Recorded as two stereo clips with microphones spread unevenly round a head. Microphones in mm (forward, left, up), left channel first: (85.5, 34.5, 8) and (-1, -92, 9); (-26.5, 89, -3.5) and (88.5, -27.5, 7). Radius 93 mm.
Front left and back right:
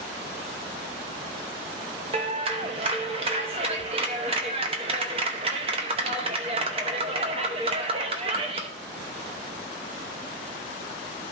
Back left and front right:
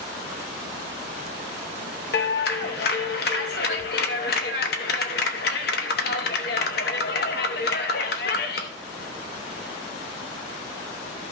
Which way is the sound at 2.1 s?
175° left.